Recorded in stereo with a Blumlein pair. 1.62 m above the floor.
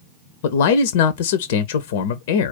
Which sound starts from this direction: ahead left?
A man speaking, at 0.4 s.